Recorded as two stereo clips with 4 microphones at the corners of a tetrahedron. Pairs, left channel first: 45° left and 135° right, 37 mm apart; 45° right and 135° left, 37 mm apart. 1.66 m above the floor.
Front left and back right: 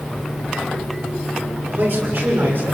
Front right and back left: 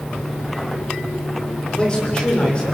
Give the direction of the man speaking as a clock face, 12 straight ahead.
4 o'clock.